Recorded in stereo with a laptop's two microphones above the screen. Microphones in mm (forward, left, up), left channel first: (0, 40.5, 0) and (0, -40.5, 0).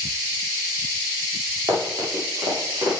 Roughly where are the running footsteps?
Right.